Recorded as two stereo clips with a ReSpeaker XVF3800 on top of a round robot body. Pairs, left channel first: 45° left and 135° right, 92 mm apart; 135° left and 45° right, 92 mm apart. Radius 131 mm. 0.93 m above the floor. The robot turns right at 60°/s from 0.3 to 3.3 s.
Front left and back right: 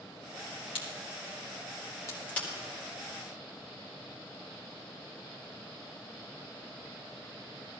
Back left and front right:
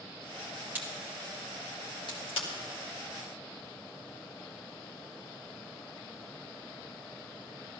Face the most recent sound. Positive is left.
turn(degrees=175)